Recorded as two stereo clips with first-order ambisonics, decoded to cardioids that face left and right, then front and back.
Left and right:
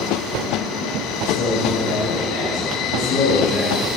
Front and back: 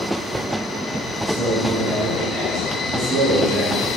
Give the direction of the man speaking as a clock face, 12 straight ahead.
9 o'clock.